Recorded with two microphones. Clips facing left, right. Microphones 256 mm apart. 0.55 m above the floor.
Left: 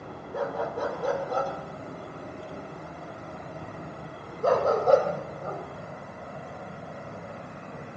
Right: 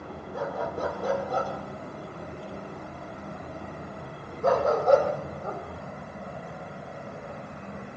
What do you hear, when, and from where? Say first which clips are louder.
0.3 s a dog barking: left 2 dB; 65° left (ahead or behind), 5.5 m; by 5.6 s 30° left (ahead or behind), 8.5 m